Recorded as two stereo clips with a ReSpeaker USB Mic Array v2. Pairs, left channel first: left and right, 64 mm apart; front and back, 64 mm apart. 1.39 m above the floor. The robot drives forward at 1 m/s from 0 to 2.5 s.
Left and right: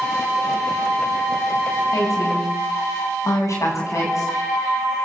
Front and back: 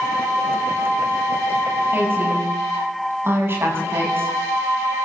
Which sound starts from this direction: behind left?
A woman speaking, at 1.9 s.